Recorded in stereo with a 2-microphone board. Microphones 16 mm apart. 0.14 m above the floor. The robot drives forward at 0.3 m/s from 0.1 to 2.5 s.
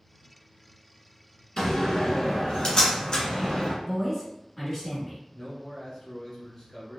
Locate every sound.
1.6 s a door slam: 40° left (ahead or behind), 1.5 m
3.9 s a woman speaking: 10° left (ahead or behind), 1.9 m
5.3 s a man speaking: 30° left (ahead or behind), 1.2 m